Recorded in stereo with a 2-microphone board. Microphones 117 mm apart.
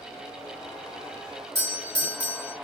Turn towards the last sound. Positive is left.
turn(degrees=-25)  # may be behind; listen again after turning